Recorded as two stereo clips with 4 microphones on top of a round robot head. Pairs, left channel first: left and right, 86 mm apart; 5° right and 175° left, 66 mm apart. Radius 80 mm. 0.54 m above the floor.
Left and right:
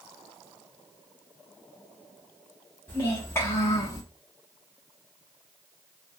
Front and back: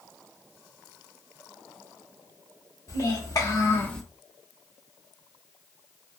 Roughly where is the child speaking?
Ahead.